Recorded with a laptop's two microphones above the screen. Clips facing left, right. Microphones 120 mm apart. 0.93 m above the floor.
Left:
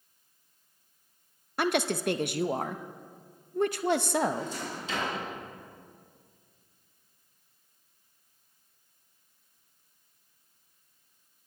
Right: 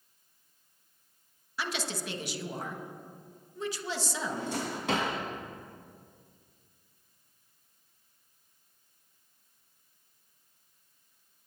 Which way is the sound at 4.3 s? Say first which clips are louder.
Even; 70° right (ahead or behind).